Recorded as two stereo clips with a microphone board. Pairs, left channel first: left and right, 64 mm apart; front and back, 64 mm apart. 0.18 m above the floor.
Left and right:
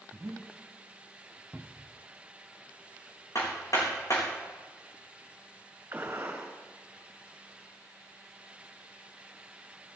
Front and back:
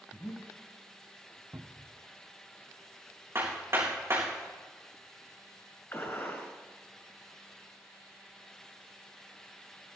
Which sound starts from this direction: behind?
A cupboard door, at 1.5 s.